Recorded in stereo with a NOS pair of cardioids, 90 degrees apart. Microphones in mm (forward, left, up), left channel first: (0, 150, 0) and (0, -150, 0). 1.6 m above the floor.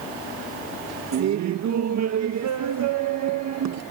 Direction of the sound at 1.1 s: 65° right.